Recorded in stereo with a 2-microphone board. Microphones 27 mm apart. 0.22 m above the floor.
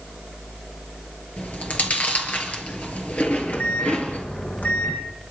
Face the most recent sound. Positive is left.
turn(degrees=80)